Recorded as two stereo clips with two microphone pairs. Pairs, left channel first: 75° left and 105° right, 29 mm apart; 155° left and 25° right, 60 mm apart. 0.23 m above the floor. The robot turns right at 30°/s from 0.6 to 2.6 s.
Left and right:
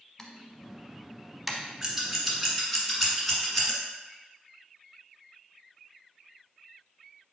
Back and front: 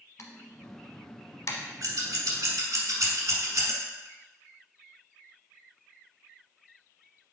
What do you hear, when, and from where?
0.2 s typing on a keyboard: 140° left, 0.8 m; by 1.6 s 170° left, 0.8 m
1.8 s scissors: 35° right, 1.2 m; by 3.8 s 15° right, 1.2 m